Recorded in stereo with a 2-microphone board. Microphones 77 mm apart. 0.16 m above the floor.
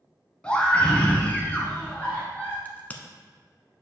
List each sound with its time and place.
0.4 s a scream: 15° left (ahead or behind), 1.4 m; by 2.5 s 20° left (ahead or behind), 1.8 m
2.6 s a crack: 20° left (ahead or behind), 0.8 m